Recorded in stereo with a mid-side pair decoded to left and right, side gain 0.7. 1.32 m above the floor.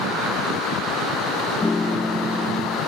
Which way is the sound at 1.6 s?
15° left.